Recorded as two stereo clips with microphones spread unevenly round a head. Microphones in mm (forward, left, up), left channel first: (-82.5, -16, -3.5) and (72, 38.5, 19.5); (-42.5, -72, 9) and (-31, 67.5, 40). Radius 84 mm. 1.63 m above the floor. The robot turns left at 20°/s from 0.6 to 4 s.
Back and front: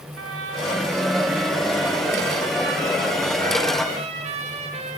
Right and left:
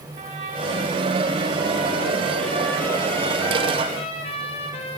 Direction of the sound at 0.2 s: 30° left.